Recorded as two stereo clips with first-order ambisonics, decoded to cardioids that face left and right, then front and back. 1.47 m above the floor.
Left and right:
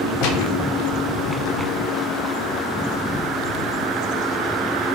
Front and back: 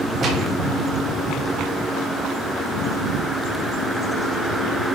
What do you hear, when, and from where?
0.2 s a gunshot: 115° left, 3.5 m